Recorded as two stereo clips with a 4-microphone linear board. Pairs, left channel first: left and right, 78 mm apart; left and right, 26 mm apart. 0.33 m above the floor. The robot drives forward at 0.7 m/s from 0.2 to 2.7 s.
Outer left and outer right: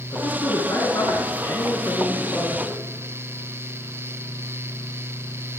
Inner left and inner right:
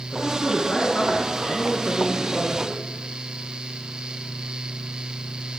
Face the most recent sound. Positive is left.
turn(degrees=40)  # may be behind; listen again after turning